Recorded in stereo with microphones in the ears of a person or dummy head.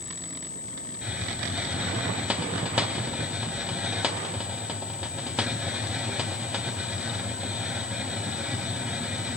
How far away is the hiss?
About 0.9 m.